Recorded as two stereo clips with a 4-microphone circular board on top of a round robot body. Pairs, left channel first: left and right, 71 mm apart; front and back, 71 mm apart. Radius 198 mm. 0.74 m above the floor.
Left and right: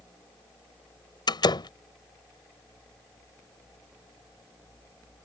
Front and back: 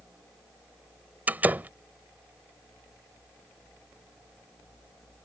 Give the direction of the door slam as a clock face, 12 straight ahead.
8 o'clock.